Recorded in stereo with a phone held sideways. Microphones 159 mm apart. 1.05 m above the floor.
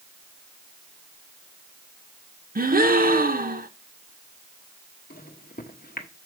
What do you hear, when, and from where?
2.5 s a gasp: 65° right (ahead or behind), 0.8 m
5.1 s a microwave: 70° left (ahead or behind), 1.2 m